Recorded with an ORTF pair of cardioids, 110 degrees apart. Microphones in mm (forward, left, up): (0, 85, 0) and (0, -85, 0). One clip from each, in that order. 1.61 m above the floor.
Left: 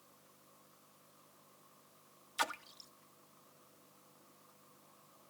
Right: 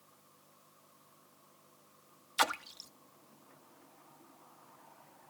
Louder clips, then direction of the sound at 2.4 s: Right 6 dB; 40° right.